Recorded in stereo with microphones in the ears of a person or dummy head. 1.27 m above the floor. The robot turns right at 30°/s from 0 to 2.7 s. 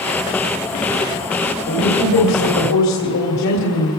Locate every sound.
1.7 s a woman speaking: 60° left, 3 m; by 3.9 s 95° left, 3 m